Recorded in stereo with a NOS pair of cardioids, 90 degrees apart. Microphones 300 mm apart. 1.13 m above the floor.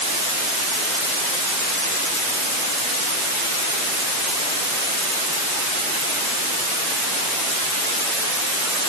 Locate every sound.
Only background noise.